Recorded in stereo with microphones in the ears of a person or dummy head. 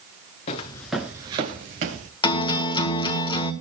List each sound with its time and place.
0.5 s footsteps: 30° left (ahead or behind), 1.1 m; by 2.1 s 50° right (ahead or behind), 1.9 m
2.2 s a guitar: 30° left (ahead or behind), 1.5 m